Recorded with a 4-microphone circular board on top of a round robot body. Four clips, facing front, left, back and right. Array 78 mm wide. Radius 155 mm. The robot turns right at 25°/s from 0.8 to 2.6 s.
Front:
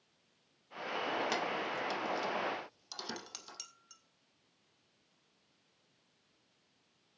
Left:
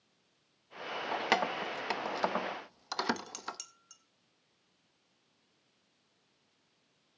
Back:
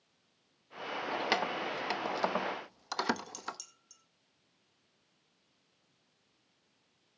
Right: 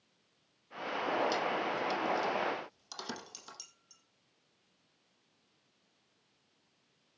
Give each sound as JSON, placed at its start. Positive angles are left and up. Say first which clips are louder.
{"t": 1.1, "sound": "keys jangling", "louder": "left 1 dB, back 4 dB", "azimuth_deg": 105, "distance_m": 0.9}
{"t": 3.2, "sound": "dishes clattering", "louder": "left 8 dB, back 8 dB", "azimuth_deg": 55, "distance_m": 2.0}